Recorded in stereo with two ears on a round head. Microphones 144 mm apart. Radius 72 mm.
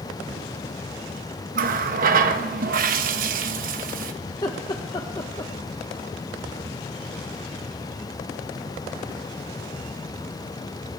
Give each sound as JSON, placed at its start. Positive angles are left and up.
{"t": 1.6, "sound": "a running tap", "side_deg": -55, "distance_m": 1.0}
{"t": 4.3, "sound": "laughter", "side_deg": 25, "distance_m": 0.9}